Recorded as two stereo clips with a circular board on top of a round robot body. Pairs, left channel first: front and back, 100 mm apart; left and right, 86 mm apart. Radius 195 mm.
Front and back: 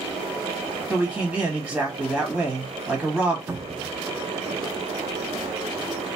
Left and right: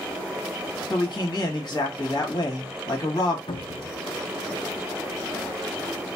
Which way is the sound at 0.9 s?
120° left.